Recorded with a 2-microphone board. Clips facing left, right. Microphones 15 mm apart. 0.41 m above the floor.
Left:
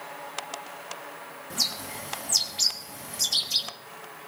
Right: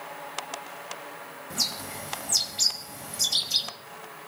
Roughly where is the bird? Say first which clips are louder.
Left 1 dB; centre.